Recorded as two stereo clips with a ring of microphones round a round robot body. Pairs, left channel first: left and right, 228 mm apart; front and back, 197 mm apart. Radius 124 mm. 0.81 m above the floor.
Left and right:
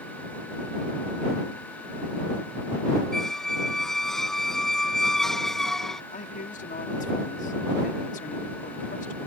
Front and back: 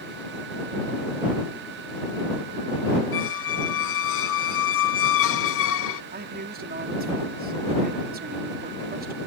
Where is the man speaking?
145° left.